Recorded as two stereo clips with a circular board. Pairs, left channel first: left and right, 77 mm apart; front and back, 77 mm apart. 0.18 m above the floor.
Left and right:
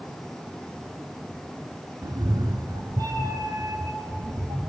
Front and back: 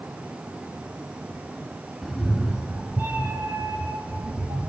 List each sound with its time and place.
2.0 s a cat meowing: 75° right, 0.7 m; by 4.7 s 150° right, 1.6 m